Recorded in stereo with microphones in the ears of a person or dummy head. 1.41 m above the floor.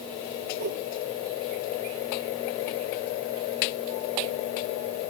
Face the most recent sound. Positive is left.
turn(degrees=-50)  # may be behind; listen again after turning